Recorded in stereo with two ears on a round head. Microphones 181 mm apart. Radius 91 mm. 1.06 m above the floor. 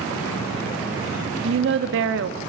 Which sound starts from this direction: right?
A woman speaking, at 1.4 s.